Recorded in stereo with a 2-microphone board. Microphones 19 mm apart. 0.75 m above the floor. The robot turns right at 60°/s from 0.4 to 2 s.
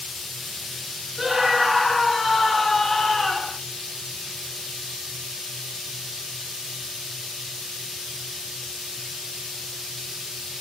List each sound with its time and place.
1.2 s a scream: 25° right, 1.2 m; by 3.6 s 25° left, 1.2 m